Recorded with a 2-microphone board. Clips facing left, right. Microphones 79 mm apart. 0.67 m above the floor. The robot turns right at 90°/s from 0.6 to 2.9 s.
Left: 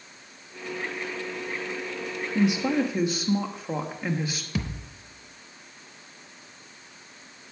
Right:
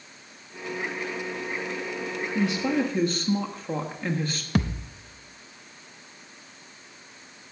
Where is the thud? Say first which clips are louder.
Right 8 dB; 65° right (ahead or behind), 0.6 m.